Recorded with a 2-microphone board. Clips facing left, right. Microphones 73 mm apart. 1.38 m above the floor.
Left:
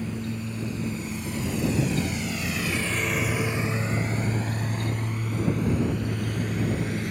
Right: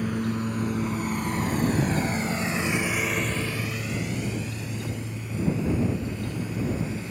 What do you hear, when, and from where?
0.0 s a lawn mower: 70° right (ahead or behind); by 7.1 s 75° left (ahead or behind)